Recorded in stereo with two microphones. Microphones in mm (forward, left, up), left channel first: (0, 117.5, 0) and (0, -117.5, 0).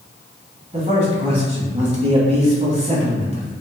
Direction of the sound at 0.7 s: 30° right (ahead or behind).